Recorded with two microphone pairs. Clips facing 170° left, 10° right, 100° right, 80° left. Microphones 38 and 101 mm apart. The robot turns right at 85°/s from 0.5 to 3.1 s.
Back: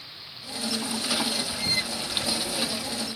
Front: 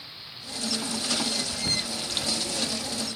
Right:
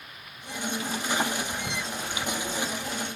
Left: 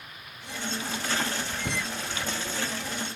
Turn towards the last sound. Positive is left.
turn(degrees=180)